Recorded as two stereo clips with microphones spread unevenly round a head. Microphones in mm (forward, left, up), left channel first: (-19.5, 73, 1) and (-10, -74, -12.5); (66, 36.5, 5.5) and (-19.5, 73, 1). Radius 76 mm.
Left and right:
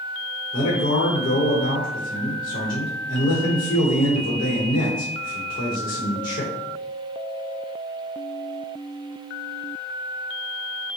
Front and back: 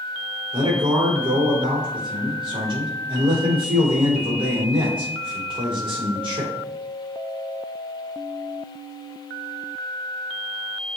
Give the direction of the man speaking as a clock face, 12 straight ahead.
8 o'clock.